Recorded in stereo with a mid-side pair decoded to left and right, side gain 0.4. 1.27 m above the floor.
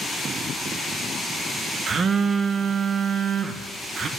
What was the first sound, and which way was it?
A phone buzzing, 55° right.